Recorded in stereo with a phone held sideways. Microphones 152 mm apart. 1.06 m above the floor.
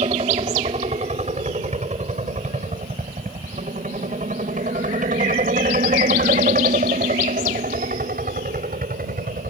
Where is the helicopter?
45° right (ahead or behind); by 9.5 s 75° right (ahead or behind).